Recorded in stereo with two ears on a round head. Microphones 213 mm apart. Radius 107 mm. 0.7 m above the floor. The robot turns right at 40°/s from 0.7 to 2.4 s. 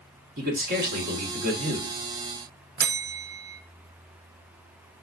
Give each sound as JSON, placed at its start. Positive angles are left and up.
{"t": 0.4, "sound": "a man speaking", "azimuth_deg": -100, "distance_m": 1.4}
{"t": 2.8, "sound": "a bell", "side_deg": -40, "distance_m": 0.5}